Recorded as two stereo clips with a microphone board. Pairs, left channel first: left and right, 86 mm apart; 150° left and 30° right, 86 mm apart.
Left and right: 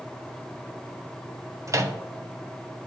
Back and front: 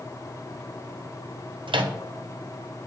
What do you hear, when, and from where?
1.7 s a microwave: 40° right, 0.6 m